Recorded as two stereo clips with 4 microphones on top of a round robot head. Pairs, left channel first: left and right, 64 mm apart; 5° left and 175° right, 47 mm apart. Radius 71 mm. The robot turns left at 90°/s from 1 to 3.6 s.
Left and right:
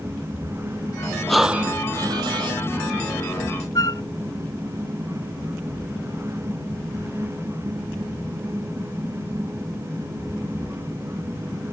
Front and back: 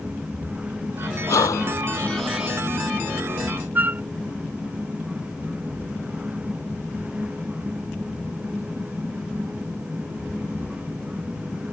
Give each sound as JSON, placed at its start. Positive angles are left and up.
{"t": 1.3, "sound": "breathing", "azimuth_deg": 5}
{"t": 3.8, "sound": "a flute", "azimuth_deg": 140}